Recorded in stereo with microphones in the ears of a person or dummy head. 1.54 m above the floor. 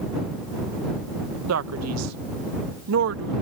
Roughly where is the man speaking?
Right.